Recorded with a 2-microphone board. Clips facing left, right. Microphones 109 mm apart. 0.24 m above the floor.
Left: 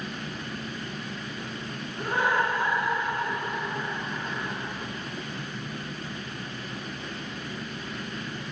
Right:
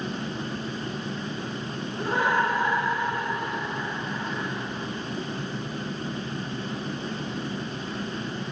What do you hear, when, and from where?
2.0 s laughter: 5° right (ahead or behind), 9.5 m